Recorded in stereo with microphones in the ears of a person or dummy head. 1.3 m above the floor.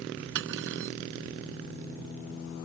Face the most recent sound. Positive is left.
turn(degrees=-65)  # may be behind; listen again after turning